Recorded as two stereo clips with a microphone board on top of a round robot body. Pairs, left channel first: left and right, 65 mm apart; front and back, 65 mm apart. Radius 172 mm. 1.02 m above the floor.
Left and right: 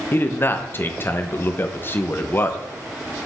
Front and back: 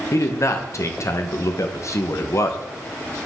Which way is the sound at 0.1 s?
35° left.